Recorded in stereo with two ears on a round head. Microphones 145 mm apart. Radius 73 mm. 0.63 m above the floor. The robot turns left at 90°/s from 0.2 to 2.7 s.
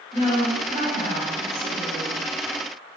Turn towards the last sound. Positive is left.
turn(degrees=-115)